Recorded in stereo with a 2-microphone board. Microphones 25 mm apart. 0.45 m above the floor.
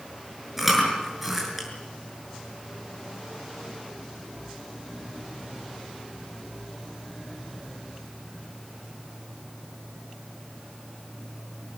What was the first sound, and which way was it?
Chewing, 10° right (ahead or behind).